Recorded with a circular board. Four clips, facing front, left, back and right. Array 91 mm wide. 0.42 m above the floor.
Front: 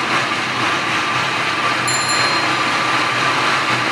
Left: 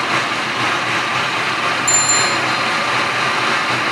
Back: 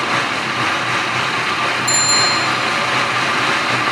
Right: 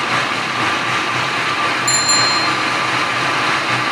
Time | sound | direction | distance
1.9 | a bicycle bell | 105° right | 4.5 m